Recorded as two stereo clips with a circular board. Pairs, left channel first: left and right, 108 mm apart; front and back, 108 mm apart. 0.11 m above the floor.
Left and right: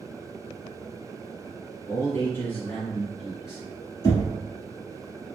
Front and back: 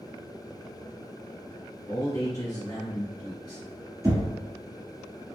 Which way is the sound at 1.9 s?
50° left.